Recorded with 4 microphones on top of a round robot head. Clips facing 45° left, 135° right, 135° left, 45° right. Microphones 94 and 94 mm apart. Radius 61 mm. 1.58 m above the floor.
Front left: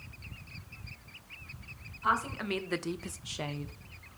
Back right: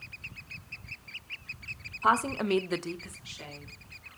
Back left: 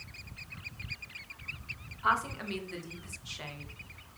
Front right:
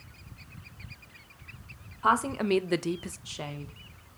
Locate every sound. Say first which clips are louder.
2.0 s a woman speaking: back right 5 dB, front right 5 dB; 95° right, 1.0 m; by 3.7 s 20° left, 0.9 m